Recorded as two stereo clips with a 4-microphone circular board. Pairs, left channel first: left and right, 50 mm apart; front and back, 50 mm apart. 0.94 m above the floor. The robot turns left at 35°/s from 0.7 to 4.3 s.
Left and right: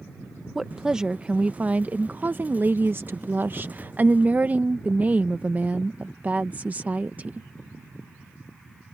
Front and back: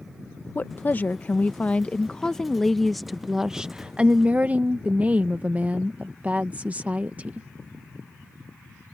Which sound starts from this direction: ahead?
A woman speaking, at 0.6 s.